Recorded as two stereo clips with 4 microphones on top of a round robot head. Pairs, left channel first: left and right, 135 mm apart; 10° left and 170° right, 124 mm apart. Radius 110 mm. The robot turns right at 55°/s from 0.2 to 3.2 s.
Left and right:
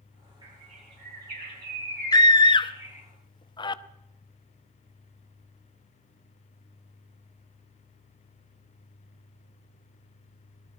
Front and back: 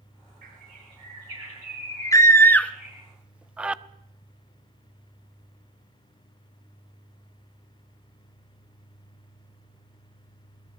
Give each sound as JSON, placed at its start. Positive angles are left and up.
{"t": 0.4, "sound": "a bird", "azimuth_deg": -160, "distance_m": 6.0}
{"t": 2.1, "sound": "a scream", "azimuth_deg": 55, "distance_m": 0.8}